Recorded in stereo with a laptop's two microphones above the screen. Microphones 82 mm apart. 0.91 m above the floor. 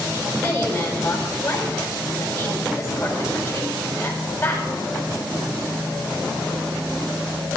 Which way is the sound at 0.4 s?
40° left (ahead or behind).